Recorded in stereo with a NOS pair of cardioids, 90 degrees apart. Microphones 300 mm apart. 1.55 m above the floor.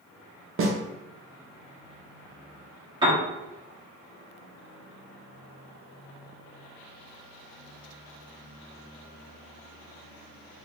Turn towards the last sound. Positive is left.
turn(degrees=-15)